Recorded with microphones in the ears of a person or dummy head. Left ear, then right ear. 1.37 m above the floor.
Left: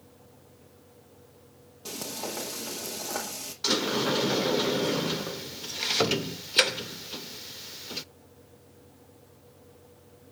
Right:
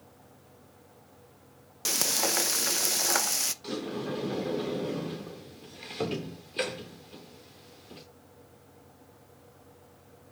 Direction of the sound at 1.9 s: 65° right (ahead or behind).